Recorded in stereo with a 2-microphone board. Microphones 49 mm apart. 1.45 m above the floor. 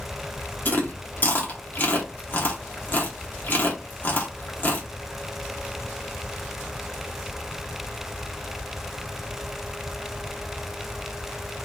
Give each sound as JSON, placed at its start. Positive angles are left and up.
{"t": 0.7, "sound": "chewing", "side_deg": 45, "distance_m": 1.2}